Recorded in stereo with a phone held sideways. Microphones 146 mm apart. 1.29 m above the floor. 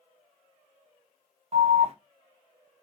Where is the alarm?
45° right (ahead or behind), 1.1 m.